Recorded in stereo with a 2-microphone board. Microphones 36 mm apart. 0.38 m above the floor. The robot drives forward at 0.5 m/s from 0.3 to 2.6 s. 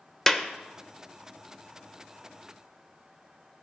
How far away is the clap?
About 1.0 m.